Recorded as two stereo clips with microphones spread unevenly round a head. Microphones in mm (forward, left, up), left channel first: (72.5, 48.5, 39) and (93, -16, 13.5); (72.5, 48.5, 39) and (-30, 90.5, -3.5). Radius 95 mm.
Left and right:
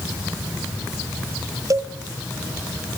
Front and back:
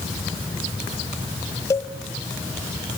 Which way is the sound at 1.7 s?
30° right.